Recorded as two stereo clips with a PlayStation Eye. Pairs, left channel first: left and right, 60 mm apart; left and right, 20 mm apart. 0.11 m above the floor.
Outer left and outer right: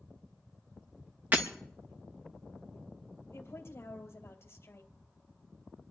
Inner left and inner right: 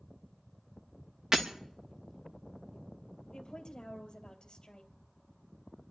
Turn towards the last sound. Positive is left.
turn(degrees=45)  # may be behind; listen again after turning